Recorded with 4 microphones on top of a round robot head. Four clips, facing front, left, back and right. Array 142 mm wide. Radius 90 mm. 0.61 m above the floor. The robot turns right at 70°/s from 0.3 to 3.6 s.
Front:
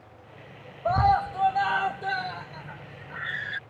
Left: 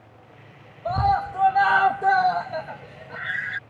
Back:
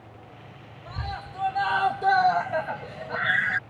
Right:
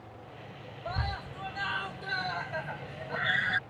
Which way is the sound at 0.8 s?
30° left.